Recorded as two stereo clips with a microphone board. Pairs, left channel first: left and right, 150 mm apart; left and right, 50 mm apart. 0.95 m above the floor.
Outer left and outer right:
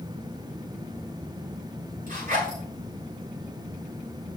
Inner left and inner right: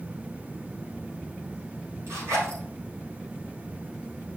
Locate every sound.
2.1 s a zipper: 75° right (ahead or behind), 5.5 m